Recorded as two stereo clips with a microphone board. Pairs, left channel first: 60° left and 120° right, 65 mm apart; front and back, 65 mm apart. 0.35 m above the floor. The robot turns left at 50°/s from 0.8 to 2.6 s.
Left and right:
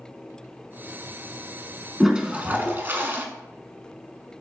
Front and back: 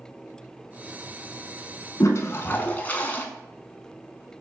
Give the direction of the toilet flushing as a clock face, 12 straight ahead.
1 o'clock.